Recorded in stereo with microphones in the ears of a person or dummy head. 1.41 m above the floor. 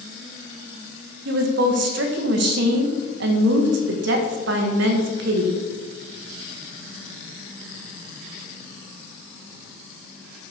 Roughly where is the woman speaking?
Right.